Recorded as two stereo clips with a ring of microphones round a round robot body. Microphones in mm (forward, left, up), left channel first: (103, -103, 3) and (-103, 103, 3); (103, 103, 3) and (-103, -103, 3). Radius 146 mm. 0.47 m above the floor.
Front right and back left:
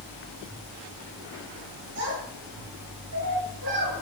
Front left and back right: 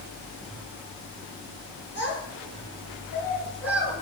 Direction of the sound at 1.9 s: 140° left.